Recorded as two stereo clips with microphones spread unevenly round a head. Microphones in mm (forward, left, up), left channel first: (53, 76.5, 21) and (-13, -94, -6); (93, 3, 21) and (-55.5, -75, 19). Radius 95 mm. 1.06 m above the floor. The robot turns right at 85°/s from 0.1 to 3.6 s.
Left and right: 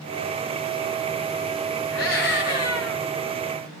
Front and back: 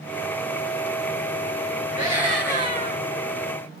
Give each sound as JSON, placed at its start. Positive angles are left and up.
{"t": 1.9, "sound": "a scream", "azimuth_deg": 75, "distance_m": 5.5}